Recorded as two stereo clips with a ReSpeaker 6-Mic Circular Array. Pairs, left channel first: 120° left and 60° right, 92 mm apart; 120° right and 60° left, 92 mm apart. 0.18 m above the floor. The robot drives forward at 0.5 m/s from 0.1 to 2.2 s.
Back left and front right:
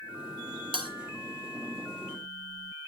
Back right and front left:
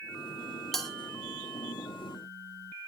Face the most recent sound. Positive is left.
turn(degrees=-50)